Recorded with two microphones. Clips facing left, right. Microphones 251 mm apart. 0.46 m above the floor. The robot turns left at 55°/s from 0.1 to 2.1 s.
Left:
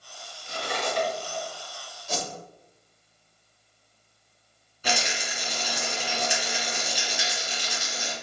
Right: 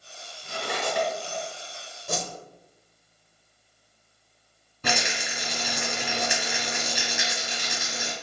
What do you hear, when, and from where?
0.4 s cutlery clinking: 70° right (ahead or behind), 2 m; by 1.4 s 55° right (ahead or behind), 2 m
2.1 s a whoosh: 55° right (ahead or behind), 0.8 m
4.8 s a rattle: 65° right (ahead or behind), 1.7 m